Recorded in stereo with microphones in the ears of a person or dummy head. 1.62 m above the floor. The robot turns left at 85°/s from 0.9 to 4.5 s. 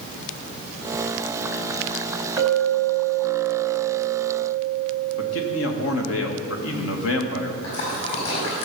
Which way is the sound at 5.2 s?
80° left.